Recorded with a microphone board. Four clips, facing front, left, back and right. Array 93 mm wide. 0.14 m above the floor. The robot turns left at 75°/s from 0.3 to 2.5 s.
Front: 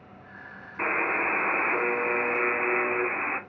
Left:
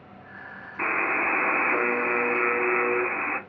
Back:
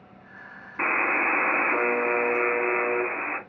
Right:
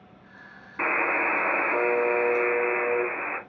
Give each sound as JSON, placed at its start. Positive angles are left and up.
{"t": 0.8, "sound": "a buzzer", "azimuth_deg": -160, "distance_m": 0.6}